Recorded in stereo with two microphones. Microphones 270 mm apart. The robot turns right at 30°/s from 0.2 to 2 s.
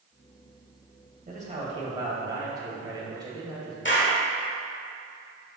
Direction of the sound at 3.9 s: 45° left (ahead or behind).